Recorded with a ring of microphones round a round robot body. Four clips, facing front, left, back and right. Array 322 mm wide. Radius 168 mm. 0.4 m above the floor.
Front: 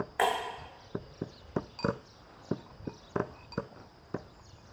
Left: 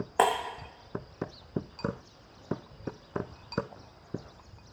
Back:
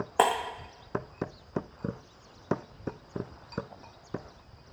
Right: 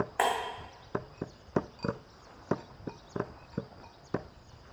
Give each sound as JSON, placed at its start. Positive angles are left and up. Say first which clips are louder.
{"t": 0.2, "sound": "breaking glass", "louder": "left 5 dB, back 4 dB", "azimuth_deg": 150, "distance_m": 1.4}